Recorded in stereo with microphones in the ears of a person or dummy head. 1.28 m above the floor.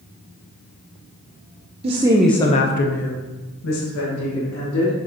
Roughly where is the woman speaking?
Right.